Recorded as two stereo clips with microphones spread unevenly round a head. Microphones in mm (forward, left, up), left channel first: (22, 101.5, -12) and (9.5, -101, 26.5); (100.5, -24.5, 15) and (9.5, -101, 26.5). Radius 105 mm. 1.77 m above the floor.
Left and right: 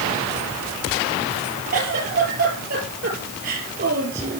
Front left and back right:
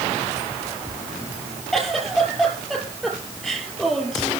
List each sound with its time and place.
1.7 s a giggle: 50° right, 7 m